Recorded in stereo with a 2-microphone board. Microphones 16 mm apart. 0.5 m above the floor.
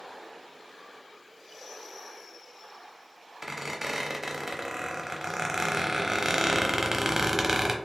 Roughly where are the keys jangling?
I don't hear keys jangling.